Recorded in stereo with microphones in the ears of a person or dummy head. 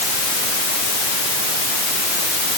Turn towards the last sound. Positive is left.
No sound to turn to.